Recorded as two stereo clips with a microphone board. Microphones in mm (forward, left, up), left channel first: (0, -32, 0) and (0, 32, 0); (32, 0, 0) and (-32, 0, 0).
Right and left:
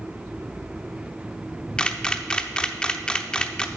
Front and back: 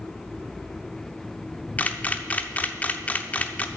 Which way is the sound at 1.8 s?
25° right.